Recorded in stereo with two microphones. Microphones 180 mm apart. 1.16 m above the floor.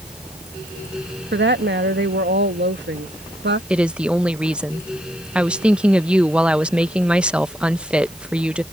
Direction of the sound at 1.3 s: 80° right.